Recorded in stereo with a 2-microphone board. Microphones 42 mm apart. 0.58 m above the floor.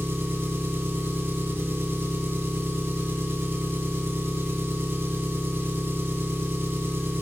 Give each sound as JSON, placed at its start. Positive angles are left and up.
{"t": 0.0, "sound": "an engine running", "side_deg": -70, "distance_m": 1.9}